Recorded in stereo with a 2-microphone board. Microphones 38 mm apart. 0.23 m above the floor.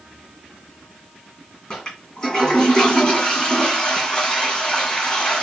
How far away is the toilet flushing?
About 2 m.